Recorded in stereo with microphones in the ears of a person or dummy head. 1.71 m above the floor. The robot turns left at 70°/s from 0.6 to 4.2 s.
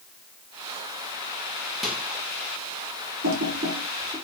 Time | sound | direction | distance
1.8 | a microwave | 5° left (ahead or behind) | 0.9 m
3.2 | typing on a keyboard | 75° right (ahead or behind) | 1.6 m